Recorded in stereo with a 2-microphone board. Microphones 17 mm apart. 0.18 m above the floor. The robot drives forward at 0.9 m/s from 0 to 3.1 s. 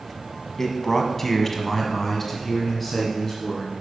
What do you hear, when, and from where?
0.6 s a man speaking: 15° left (ahead or behind), 1.5 m; by 3.7 s 10° left (ahead or behind), 2 m